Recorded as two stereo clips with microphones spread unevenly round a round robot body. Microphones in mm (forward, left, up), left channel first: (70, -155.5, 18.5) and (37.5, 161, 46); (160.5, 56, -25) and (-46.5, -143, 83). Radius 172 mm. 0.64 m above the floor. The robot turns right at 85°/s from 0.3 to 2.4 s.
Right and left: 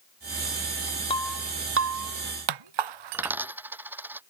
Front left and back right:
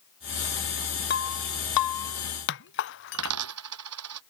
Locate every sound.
1.1 s breaking glass: 10° right; by 3.4 s 100° left
3.1 s a dropped coin: straight behind